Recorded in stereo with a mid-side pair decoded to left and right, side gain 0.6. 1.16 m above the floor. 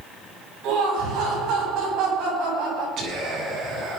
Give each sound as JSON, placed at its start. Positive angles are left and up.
{"t": 0.6, "sound": "laughter", "azimuth_deg": -65, "distance_m": 9.5}
{"t": 3.0, "sound": "whispering", "azimuth_deg": -55, "distance_m": 9.0}